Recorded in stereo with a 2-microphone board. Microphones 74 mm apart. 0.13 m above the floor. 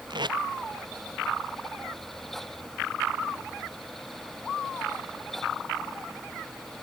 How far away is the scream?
No scream in this recording.